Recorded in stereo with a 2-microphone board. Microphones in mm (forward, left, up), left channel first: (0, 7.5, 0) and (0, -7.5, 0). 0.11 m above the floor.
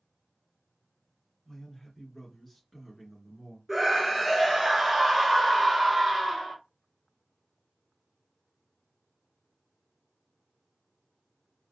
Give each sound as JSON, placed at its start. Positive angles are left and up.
{"t": 1.4, "sound": "a man speaking", "side_deg": 30, "distance_m": 1.7}
{"t": 3.7, "sound": "a scream", "side_deg": -25, "distance_m": 1.3}